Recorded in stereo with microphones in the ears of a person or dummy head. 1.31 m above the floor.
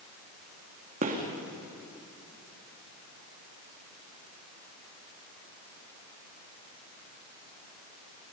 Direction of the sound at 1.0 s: 45° right (ahead or behind).